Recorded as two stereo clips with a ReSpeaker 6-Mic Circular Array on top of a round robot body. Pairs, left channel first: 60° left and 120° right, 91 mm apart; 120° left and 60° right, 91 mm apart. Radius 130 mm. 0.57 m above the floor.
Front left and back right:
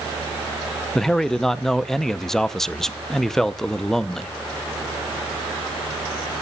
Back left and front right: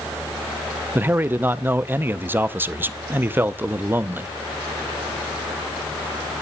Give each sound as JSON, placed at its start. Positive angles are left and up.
{"t": 0.9, "sound": "a man speaking", "azimuth_deg": -20, "distance_m": 0.7}